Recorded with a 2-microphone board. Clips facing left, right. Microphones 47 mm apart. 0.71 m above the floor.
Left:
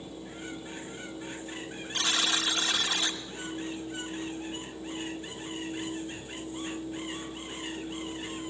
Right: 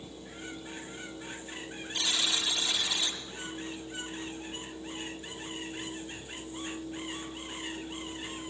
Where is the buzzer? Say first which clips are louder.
Left 3 dB; 45° left (ahead or behind), 2.5 m.